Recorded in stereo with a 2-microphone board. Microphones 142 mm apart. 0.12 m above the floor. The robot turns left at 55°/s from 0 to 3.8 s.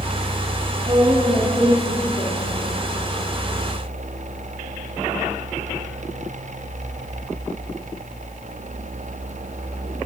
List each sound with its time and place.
0.8 s a woman speaking: 145° right, 4.5 m; by 2.6 s 120° left, 4.5 m